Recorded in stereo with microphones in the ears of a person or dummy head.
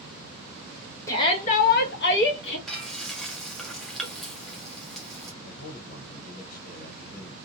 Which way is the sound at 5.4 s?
50° left (ahead or behind).